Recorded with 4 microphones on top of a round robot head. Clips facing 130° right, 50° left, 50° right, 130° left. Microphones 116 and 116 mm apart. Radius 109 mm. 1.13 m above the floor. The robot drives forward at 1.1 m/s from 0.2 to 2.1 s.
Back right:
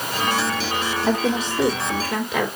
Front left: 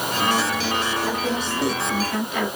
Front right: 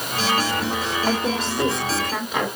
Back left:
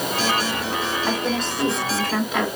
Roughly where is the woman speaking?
Behind right.